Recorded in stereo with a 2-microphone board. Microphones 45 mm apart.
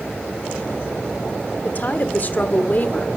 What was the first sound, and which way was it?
A woman speaking, 40° left (ahead or behind).